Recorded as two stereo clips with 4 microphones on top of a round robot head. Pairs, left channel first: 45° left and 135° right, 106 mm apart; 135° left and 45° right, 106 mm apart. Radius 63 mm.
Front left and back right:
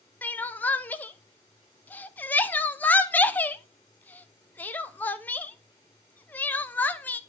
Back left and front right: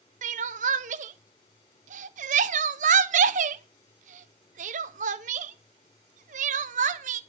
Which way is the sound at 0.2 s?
30° right.